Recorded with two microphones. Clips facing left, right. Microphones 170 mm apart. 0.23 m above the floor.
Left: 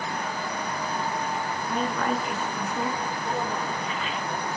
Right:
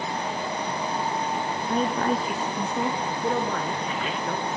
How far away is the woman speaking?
About 3 m.